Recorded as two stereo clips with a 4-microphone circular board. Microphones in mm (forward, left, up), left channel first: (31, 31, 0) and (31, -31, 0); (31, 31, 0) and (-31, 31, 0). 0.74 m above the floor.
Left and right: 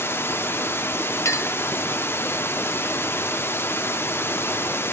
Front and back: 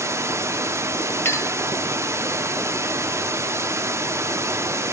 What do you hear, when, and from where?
0.0 s running water: 140° left, 0.7 m
1.2 s a clink: 50° left, 1.5 m